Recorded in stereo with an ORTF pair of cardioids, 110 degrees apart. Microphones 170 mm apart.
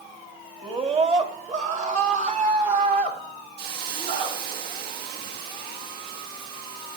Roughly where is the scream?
Ahead right.